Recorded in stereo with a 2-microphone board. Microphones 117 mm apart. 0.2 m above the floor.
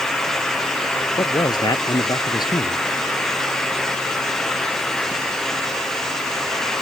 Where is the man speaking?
40° left (ahead or behind).